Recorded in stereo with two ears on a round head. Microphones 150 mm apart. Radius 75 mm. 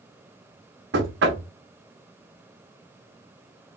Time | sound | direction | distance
0.9 | knocking | 70° right (ahead or behind) | 1.2 m